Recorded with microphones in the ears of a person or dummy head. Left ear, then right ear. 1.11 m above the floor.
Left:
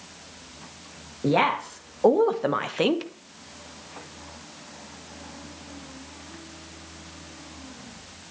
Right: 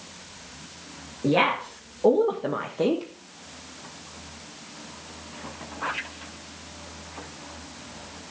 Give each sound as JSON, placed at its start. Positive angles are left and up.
{"t": 1.2, "sound": "a woman speaking", "side_deg": 35, "distance_m": 2.0}